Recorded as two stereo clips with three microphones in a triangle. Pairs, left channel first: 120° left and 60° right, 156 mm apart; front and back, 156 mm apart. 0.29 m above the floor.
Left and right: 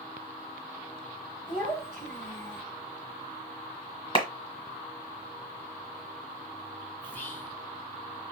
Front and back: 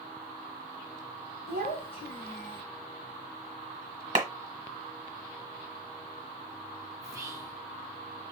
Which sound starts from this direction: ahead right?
A child speaking, at 1.5 s.